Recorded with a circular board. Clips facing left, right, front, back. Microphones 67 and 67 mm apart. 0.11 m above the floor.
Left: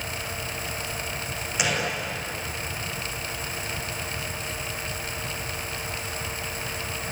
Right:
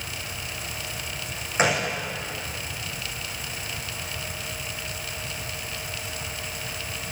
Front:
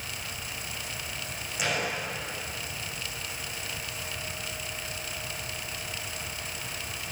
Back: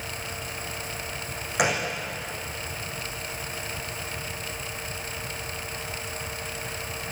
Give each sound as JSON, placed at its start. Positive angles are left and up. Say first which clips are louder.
{"t": 1.6, "sound": "a gunshot", "louder": "right 4 dB, back 5 dB", "azimuth_deg": -145, "distance_m": 7.0}